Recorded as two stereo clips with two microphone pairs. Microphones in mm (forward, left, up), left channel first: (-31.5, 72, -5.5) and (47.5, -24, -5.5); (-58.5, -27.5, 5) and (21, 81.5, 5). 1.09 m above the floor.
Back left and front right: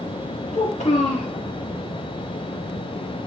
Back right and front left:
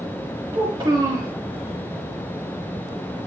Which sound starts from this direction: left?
A child speaking, at 0.5 s.